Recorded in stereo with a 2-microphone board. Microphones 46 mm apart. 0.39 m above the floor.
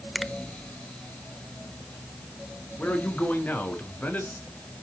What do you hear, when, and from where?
0.1 s a finger snap: centre (ahead or behind), 0.8 m
2.8 s a man speaking: 40° left (ahead or behind), 5 m